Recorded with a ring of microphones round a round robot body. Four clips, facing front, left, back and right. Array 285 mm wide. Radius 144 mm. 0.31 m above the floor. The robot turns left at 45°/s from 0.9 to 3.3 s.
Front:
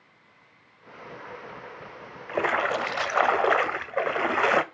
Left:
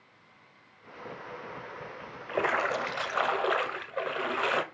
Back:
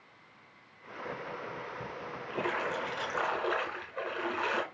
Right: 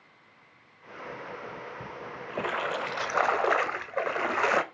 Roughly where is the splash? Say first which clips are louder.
Left 3 dB, front 8 dB; ahead left.